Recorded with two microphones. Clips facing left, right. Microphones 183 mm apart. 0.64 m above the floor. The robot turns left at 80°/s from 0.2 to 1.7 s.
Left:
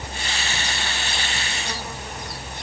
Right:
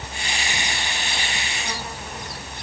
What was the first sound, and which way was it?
Only background noise.